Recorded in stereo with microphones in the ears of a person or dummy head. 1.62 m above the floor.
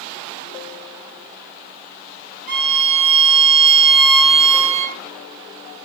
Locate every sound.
2.5 s a violin: 45° right (ahead or behind), 1.1 m